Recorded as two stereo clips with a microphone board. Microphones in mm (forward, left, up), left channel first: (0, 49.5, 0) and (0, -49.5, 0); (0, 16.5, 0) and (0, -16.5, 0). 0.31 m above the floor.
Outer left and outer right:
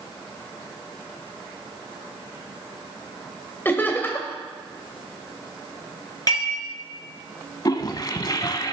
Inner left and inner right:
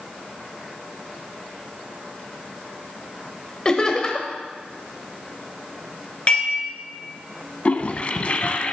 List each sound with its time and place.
3.6 s laughter: 20° left (ahead or behind), 0.9 m
6.3 s dishes clattering: 40° left (ahead or behind), 3 m
7.7 s a toilet flushing: 45° left (ahead or behind), 0.6 m